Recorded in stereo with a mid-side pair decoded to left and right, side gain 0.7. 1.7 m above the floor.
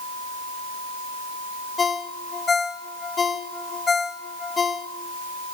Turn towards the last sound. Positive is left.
turn(degrees=25)